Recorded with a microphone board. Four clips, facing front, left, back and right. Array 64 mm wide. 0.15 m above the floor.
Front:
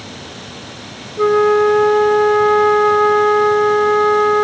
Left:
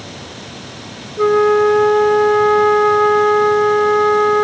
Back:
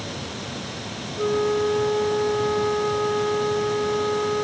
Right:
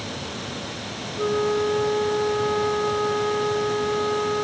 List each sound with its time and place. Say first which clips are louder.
1.2 s a flute: left 11 dB, front 10 dB; 40° left